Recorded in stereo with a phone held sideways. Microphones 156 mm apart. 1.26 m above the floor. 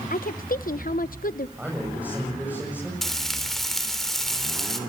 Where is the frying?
Centre (ahead or behind), 3.5 m.